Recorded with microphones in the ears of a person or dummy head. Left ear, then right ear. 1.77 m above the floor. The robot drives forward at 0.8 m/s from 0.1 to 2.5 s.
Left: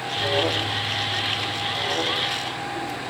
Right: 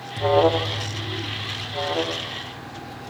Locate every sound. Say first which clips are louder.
0.2 s an alarm: right 5 dB; 60° right (ahead or behind), 0.7 m; by 3.1 s 15° right (ahead or behind), 2.0 m